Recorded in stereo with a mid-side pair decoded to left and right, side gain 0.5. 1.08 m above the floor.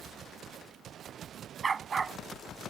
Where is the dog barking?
35° right.